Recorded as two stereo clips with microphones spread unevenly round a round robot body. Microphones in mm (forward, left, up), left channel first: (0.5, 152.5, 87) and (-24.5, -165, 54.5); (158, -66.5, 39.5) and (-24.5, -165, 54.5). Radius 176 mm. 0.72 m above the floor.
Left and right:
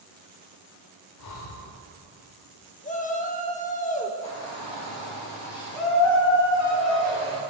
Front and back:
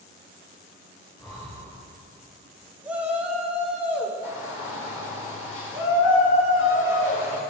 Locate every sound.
1.2 s breathing: 115° left, 0.9 m
2.8 s a shout: 125° left, 1.1 m
4.2 s a shout: 45° left, 2.5 m